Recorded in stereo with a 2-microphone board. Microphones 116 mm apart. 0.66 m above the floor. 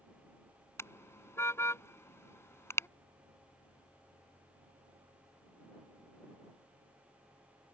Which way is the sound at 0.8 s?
20° left (ahead or behind).